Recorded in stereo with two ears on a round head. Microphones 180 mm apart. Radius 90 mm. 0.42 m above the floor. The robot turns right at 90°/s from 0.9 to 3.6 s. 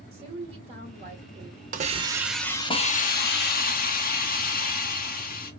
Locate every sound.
0.1 s a woman speaking: 130° right, 1.7 m; by 1.6 s 65° right, 1.7 m
1.7 s a hiss: 55° right, 0.6 m; by 5.5 s 115° left, 0.6 m